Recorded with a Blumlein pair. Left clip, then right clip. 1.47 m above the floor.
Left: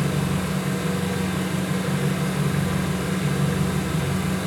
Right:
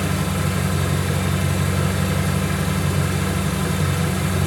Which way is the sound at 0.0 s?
55° right.